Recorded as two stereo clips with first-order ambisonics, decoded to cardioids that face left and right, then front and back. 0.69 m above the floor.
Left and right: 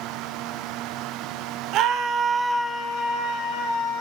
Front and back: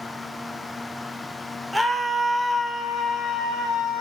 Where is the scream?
95° right, 0.7 m; by 4.0 s 70° left, 1.0 m.